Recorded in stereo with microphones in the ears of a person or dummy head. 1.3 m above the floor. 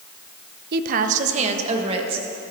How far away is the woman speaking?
About 0.6 m.